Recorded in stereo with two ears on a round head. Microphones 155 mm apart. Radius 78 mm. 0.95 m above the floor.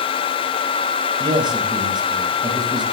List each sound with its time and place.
1.2 s a man speaking: 25° right (ahead or behind), 4.5 m